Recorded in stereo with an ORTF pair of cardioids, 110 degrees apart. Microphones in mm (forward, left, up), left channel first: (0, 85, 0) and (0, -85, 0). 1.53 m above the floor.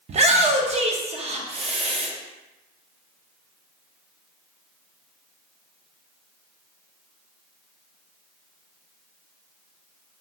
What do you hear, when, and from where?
0.1 s a shout: 40° right, 0.7 m